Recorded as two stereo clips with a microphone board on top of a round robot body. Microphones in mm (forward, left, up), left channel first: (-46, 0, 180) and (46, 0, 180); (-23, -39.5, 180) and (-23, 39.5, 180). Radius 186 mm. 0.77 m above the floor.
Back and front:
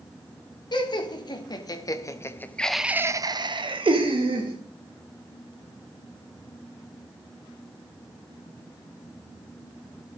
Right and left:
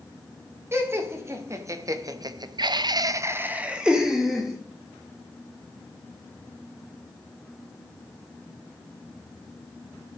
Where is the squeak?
No squeak in this recording.